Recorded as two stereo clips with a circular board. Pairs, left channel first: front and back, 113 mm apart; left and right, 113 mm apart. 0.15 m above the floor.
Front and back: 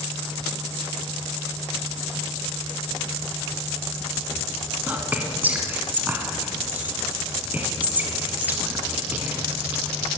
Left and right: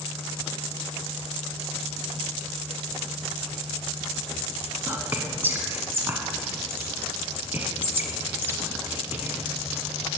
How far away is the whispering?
About 1.4 m.